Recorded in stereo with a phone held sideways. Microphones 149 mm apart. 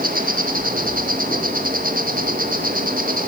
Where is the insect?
75° right (ahead or behind), 2 m.